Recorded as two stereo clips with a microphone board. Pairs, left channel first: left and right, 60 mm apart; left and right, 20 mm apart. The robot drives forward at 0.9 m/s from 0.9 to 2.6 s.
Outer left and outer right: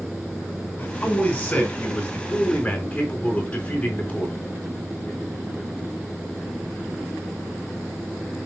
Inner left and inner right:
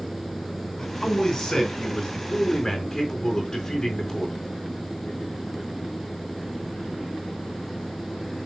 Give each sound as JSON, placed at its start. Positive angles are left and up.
{"t": 0.8, "sound": "a man speaking", "side_deg": 30, "distance_m": 3.5}